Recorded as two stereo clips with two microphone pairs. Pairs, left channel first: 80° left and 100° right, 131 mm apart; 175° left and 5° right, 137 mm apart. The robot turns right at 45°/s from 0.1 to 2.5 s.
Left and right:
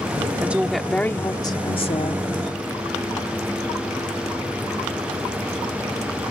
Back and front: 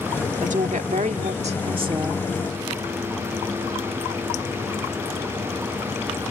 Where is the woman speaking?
25° right; by 2.2 s 55° left.